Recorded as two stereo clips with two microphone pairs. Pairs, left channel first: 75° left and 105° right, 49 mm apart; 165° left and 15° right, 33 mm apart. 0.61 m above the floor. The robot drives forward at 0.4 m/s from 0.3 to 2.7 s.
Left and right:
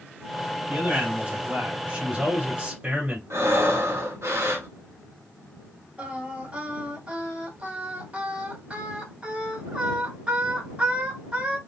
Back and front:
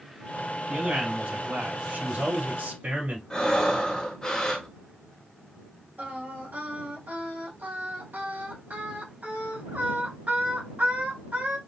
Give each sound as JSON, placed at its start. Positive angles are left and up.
{"t": 0.7, "sound": "a man speaking", "azimuth_deg": -30, "distance_m": 3.0}
{"t": 3.3, "sound": "breathing", "azimuth_deg": -125, "distance_m": 1.5}
{"t": 6.0, "sound": "singing", "azimuth_deg": -40, "distance_m": 2.5}